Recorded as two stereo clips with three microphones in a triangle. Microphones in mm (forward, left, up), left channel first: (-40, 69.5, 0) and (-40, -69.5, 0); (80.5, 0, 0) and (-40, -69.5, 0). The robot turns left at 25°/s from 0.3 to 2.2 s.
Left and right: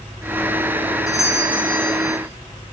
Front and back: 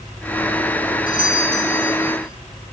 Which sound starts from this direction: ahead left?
A doorbell, at 1.1 s.